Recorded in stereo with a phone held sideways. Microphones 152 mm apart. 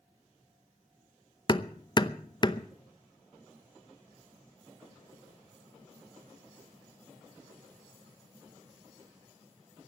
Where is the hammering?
30° left (ahead or behind), 0.7 m.